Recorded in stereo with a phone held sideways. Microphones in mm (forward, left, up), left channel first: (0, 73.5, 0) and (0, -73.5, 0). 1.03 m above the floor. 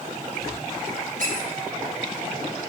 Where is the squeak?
65° right (ahead or behind), 4 m.